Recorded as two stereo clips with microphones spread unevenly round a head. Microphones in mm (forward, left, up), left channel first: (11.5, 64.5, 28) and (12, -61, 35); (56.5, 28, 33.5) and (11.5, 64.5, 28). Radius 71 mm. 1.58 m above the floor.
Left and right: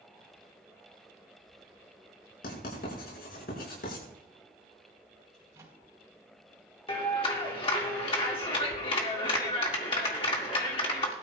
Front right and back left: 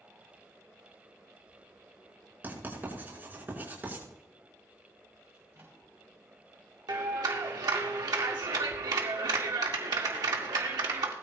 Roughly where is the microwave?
Behind.